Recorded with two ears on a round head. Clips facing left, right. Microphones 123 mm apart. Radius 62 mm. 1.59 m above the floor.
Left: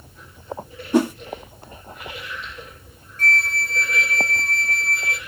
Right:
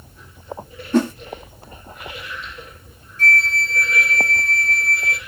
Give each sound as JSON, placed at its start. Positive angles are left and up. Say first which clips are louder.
{"t": 0.9, "sound": "a whoosh", "louder": "even", "side_deg": 10, "distance_m": 0.7}
{"t": 3.2, "sound": "a flute", "louder": "right 3 dB", "side_deg": 35, "distance_m": 1.2}